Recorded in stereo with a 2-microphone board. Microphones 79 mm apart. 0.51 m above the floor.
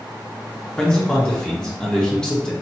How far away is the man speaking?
About 0.8 m.